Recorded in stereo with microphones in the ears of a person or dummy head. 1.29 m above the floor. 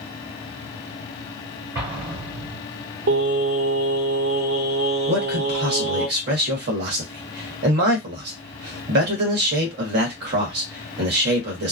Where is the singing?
70° right (ahead or behind), 1.5 m.